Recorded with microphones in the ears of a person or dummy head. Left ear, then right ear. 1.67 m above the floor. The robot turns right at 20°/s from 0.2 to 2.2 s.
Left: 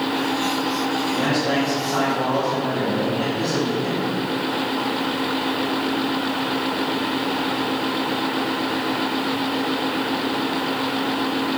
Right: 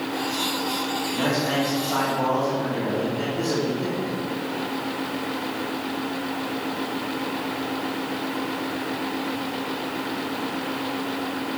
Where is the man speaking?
45° right (ahead or behind), 3 m; by 4.1 s 65° right (ahead or behind), 3 m.